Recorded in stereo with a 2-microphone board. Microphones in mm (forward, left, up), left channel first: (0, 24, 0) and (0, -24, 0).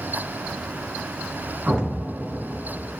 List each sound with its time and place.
1.7 s an explosion: 20° right (ahead or behind), 0.9 m